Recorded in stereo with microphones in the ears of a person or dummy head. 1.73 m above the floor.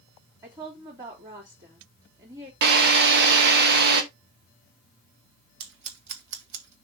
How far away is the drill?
About 1.4 m.